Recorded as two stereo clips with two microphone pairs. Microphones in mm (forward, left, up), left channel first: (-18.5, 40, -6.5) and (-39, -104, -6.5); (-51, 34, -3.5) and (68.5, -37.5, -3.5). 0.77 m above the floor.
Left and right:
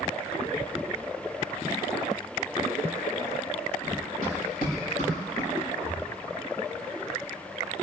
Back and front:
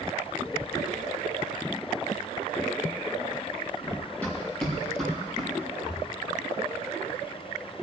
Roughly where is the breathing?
Left.